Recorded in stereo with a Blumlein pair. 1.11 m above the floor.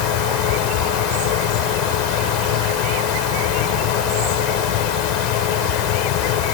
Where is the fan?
40° left.